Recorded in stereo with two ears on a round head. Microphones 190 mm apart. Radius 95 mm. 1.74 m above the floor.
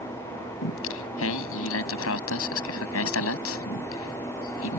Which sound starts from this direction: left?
Singing, at 0.6 s.